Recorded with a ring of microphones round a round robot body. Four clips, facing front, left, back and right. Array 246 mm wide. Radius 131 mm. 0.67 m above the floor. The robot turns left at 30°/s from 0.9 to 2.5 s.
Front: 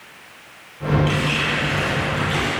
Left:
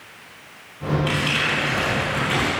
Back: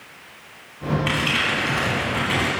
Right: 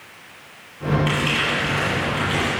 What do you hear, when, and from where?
1.1 s crumpling: 160° right, 5.5 m; by 2.5 s 155° left, 5.5 m